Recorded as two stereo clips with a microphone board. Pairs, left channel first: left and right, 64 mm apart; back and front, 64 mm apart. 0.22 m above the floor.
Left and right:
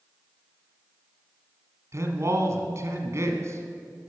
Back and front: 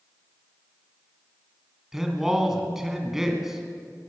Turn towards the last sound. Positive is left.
turn(degrees=-80)